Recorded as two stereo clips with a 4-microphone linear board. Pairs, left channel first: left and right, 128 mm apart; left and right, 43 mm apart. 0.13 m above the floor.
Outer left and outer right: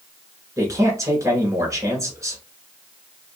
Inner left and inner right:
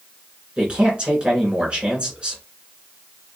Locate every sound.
0.6 s a man speaking: 25° right (ahead or behind), 1.3 m